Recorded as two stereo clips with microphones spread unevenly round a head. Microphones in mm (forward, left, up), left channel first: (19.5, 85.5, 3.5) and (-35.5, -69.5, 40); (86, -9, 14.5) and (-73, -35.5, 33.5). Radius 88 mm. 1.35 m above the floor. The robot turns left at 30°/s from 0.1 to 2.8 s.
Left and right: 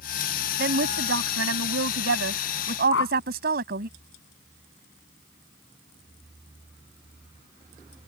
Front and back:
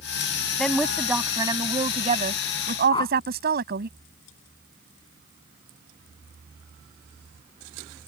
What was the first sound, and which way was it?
A woman speaking, 75° right.